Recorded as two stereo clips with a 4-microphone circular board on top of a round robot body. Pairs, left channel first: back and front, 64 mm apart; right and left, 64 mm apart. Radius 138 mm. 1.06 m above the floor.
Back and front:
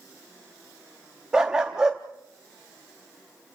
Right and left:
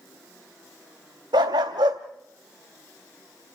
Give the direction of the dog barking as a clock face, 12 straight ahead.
9 o'clock.